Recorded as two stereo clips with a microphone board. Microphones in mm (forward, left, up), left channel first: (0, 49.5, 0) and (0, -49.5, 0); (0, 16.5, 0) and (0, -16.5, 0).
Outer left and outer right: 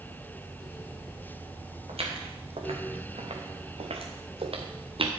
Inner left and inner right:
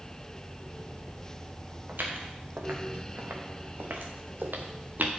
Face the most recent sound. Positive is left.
turn(degrees=-65)  # may be behind; listen again after turning